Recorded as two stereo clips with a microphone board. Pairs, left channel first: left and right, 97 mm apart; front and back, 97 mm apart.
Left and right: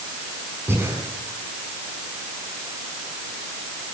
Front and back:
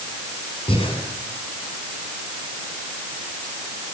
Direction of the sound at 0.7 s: 25° right.